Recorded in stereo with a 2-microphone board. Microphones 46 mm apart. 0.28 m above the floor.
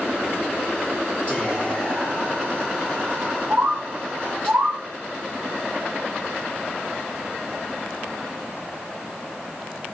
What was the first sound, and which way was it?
Whispering, 30° left (ahead or behind).